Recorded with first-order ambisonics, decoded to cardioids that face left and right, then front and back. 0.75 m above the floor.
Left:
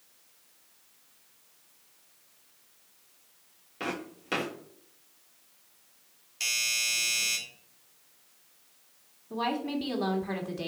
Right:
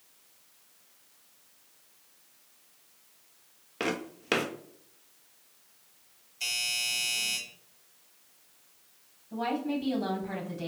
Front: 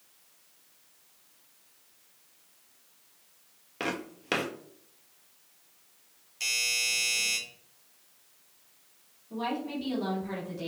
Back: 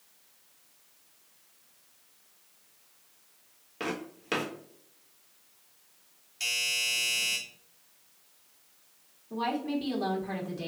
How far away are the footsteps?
About 0.8 m.